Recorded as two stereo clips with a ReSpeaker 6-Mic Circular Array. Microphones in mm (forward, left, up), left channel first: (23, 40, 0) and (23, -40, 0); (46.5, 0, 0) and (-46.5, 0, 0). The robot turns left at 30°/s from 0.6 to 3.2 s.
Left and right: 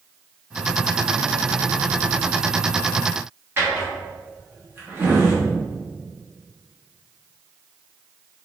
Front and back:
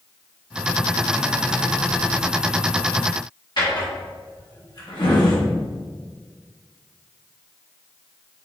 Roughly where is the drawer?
Ahead right.